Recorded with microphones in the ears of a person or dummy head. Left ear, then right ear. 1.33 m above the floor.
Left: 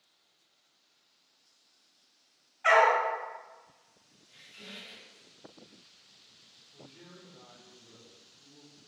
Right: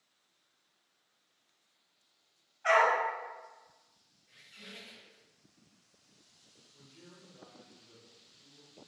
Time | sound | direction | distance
2.6 | a dog barking | 35° left (ahead or behind) | 1.3 m
4.3 | a squeak | 15° right (ahead or behind) | 1.0 m
6.7 | a man speaking | 65° left (ahead or behind) | 1.4 m